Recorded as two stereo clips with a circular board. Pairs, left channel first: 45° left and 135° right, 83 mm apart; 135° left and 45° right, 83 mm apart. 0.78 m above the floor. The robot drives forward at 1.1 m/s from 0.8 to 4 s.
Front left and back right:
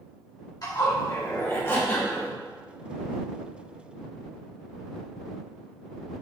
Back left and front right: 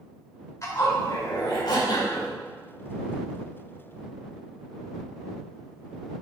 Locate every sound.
0.6 s a zipper: 85° left, 2.5 m; by 2.3 s 115° left, 3 m